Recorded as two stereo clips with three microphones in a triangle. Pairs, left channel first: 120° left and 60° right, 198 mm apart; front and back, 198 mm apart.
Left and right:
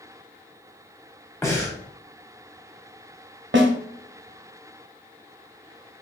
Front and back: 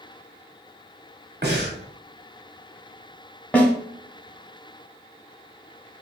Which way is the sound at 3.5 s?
80° right.